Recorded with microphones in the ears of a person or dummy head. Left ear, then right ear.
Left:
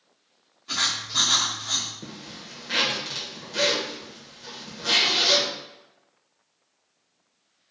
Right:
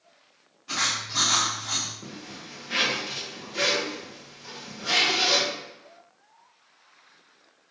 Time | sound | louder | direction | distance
0.7 | writing | left 2 dB | 5° left (ahead or behind) | 0.7 m
2.0 | a zipper | left 1 dB | 45° left (ahead or behind) | 0.6 m